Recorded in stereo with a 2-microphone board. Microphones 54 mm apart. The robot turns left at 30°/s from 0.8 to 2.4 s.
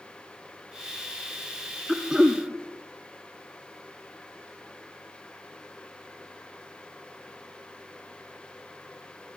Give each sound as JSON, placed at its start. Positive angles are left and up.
{"t": 1.9, "sound": "throat clearing", "side_deg": -5, "distance_m": 2.0}